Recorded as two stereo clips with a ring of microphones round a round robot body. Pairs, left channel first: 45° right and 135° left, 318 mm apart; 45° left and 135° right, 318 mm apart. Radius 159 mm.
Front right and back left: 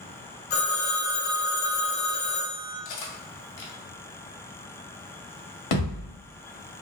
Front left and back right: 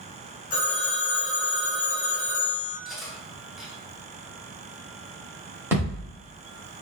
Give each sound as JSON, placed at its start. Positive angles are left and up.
{"t": 0.5, "sound": "a phone ringing", "azimuth_deg": -20, "distance_m": 0.8}
{"t": 2.9, "sound": "cutlery clinking", "azimuth_deg": -45, "distance_m": 0.7}
{"t": 5.7, "sound": "a thud", "azimuth_deg": -55, "distance_m": 0.9}